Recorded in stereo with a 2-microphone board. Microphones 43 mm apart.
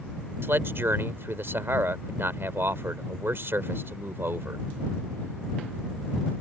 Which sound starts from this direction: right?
A man speaking, at 0.4 s.